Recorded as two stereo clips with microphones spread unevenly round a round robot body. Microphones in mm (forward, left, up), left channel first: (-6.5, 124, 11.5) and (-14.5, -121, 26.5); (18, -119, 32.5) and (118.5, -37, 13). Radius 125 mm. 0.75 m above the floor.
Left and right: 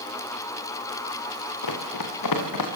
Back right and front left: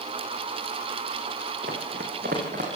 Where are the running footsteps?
90° left, 5 m; by 2.7 s 95° left, 5.5 m.